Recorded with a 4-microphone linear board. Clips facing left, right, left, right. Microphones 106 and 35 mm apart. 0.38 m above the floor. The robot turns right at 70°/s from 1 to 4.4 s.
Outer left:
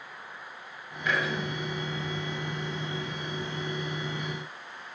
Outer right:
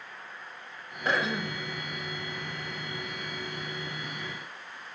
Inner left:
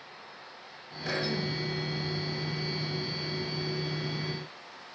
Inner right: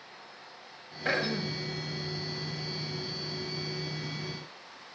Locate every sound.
1.1 s throat clearing: 40° right, 1.0 m; by 1.6 s 5° left, 1.0 m